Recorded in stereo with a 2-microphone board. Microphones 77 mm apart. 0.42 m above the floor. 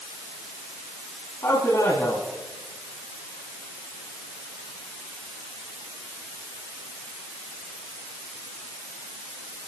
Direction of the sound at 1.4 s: 45° left (ahead or behind).